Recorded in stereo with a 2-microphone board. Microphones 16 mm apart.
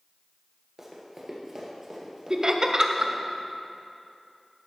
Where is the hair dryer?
I don't hear a hair dryer.